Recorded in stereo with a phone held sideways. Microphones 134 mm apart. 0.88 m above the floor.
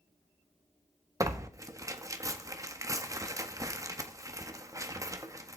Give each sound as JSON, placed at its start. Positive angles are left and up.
{"t": 1.2, "sound": "tearing paper", "side_deg": -25, "distance_m": 1.6}